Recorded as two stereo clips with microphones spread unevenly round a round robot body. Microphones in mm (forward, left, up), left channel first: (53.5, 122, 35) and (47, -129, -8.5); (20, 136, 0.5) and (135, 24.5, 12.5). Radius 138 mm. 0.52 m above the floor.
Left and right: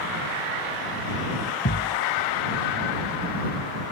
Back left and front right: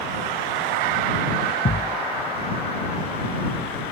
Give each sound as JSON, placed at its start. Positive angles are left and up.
{"t": 1.6, "sound": "a thud", "azimuth_deg": 135}